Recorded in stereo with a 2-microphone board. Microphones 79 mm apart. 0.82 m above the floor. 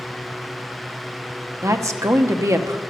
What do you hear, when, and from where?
1.6 s a woman speaking: 40° right (ahead or behind), 1.0 m